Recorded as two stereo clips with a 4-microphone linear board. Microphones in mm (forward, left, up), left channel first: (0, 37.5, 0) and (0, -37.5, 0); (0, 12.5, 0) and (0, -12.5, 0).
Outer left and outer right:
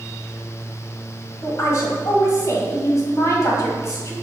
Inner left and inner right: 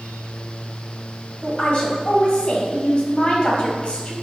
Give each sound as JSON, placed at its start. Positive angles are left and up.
{"t": 1.4, "sound": "a woman speaking", "side_deg": 40, "distance_m": 1.3}